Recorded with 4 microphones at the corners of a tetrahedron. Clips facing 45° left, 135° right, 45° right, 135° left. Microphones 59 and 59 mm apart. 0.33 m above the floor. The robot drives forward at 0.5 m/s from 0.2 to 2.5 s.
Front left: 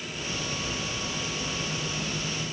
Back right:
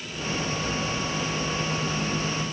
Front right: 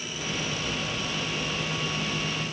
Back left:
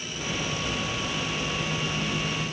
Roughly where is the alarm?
I don't hear an alarm.